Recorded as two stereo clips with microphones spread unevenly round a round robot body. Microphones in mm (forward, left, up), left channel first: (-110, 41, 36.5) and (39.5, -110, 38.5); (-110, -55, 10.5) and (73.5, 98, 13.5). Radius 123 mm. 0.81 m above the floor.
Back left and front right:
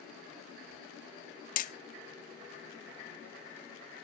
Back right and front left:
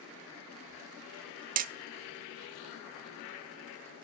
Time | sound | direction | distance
1.6 | hammering | 90° left | 0.6 m